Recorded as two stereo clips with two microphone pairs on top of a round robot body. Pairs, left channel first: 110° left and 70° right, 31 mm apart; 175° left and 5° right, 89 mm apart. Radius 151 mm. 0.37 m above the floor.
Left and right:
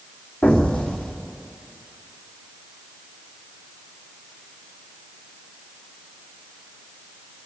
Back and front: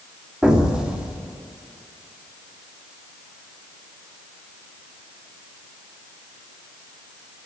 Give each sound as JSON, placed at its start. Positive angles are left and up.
{"t": 0.4, "sound": "an explosion", "azimuth_deg": 70, "distance_m": 1.9}